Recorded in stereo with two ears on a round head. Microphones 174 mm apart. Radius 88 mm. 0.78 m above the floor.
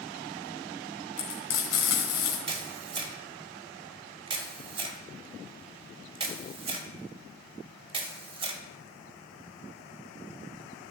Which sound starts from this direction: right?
A camera shutter, at 2.5 s.